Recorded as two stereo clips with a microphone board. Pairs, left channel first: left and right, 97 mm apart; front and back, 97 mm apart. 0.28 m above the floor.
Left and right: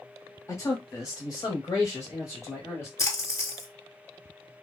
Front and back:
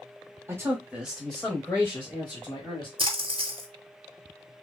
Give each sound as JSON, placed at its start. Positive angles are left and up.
{"t": 0.5, "sound": "a man speaking", "azimuth_deg": 135, "distance_m": 1.2}
{"t": 3.0, "sound": "a splash", "azimuth_deg": 150, "distance_m": 0.9}